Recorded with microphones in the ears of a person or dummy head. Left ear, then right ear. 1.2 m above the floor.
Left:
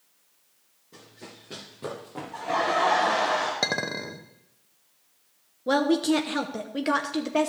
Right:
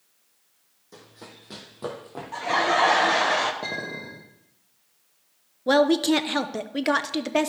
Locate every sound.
0.9 s running footsteps: 40° right (ahead or behind), 2 m; by 3.3 s 15° left (ahead or behind), 1.9 m
2.3 s laughter: 45° right (ahead or behind), 0.7 m
3.6 s a clink: 70° left (ahead or behind), 1.0 m
5.7 s a woman speaking: 20° right (ahead or behind), 0.6 m